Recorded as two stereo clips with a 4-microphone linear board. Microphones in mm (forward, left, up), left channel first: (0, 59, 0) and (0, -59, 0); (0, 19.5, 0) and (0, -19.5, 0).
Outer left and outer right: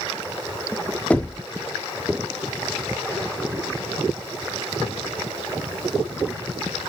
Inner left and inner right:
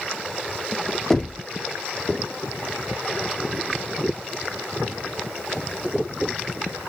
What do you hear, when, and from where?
1.1 s knocking: 10° left (ahead or behind), 0.6 m